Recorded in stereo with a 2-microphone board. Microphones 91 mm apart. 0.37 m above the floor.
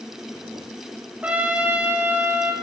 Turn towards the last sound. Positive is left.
turn(degrees=-15)  # may be behind; listen again after turning